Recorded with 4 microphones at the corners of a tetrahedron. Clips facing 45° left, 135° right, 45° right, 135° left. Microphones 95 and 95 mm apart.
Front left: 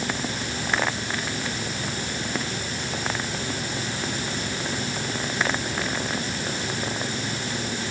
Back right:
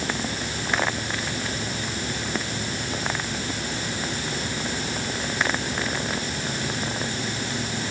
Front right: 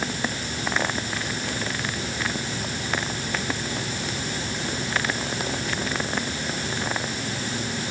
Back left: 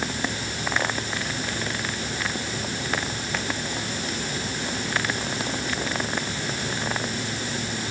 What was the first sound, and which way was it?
Only background noise.